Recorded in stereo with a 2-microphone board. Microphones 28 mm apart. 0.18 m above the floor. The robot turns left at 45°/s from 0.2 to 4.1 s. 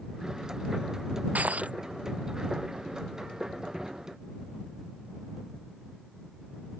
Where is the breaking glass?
75° right (ahead or behind); by 1.8 s 55° right (ahead or behind).